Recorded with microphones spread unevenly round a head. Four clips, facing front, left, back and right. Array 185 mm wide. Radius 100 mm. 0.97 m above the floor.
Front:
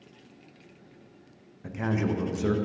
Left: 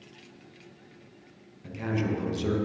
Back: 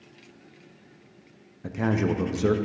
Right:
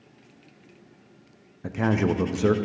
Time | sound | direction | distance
1.6 | a man speaking | 125° right | 0.7 m